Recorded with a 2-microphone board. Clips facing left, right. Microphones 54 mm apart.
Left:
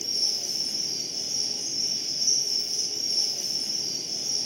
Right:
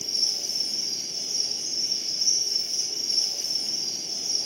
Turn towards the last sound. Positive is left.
turn(degrees=50)  # may be behind; listen again after turning